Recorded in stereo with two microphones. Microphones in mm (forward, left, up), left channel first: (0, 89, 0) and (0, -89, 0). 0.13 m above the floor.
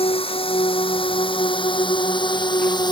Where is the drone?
30° left (ahead or behind); by 2.9 s 25° left (ahead or behind).